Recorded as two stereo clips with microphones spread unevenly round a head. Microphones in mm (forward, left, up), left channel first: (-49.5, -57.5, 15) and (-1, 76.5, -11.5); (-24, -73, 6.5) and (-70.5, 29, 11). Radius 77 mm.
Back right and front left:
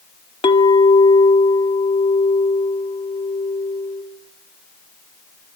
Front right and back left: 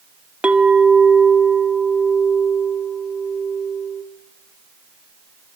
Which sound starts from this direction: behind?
A clink, at 0.4 s.